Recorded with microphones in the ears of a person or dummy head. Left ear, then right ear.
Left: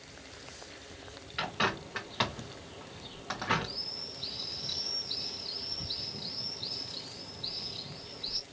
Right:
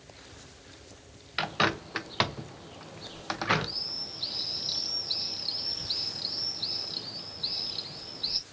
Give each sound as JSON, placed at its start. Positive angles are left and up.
{"t": 1.4, "sound": "a bird", "side_deg": -35, "distance_m": 0.8}